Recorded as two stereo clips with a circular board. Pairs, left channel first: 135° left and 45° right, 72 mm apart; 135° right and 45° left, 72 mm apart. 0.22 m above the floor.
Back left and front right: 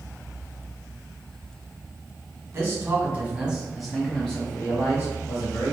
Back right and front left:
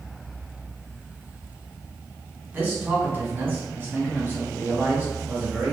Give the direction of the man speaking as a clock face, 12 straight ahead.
12 o'clock.